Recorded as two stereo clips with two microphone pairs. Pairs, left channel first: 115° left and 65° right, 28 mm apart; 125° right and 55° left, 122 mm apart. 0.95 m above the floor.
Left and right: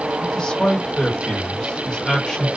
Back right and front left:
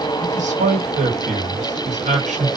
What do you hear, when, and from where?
0.2 s a man speaking: 50° left, 1.2 m